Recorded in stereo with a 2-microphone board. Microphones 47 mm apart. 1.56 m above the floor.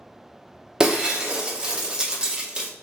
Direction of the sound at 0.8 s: 15° right (ahead or behind).